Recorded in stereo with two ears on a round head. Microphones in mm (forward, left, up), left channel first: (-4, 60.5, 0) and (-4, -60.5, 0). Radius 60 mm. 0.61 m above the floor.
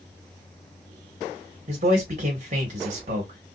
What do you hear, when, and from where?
1.7 s a man speaking: 65° right (ahead or behind), 1.3 m